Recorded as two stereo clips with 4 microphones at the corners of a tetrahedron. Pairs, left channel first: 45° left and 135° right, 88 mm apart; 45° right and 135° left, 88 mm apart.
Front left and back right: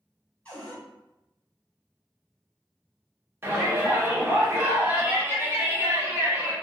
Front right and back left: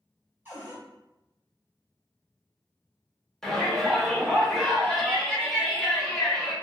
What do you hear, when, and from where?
0.5 s a cupboard door: 100° left, 1.2 m
3.4 s a shout: 120° right, 0.8 m